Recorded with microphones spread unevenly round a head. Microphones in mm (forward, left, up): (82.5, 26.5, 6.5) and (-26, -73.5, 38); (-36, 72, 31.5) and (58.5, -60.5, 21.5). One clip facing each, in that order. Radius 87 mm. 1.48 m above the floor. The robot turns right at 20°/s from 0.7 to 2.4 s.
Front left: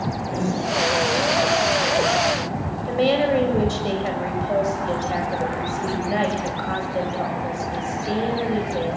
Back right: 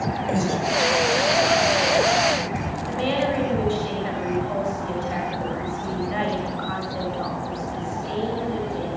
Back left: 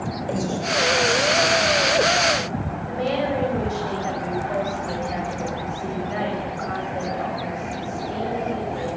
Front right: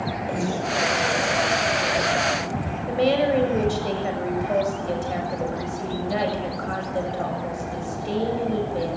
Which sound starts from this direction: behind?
Breathing, at 0.3 s.